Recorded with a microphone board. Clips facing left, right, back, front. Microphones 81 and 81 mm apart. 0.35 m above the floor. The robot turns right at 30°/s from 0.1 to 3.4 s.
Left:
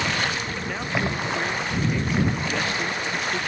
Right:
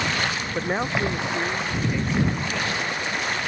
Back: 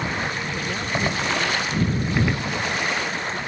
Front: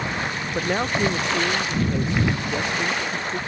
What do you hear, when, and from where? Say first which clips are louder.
0.6 s a man speaking: right 3 dB, front 7 dB; 40° right; by 3.4 s 45° left